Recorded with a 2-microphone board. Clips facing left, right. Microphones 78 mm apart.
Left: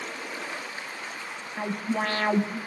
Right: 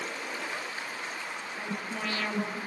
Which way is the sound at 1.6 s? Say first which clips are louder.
Left 9 dB; 50° left (ahead or behind).